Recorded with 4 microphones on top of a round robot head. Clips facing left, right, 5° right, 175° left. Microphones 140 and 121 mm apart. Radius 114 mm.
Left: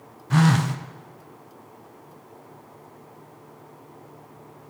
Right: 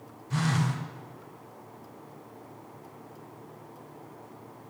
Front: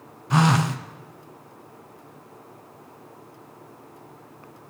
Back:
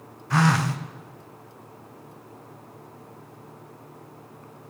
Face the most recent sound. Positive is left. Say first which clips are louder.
# left 9 dB, front 2 dB
turn(degrees=65)